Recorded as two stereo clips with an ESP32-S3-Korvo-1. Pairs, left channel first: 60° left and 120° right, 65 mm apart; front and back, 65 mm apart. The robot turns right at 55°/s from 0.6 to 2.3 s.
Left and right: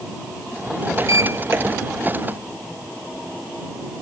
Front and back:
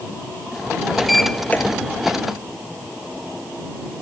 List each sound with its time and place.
1.0 s a sliding door: 95° right; by 1.6 s 60° right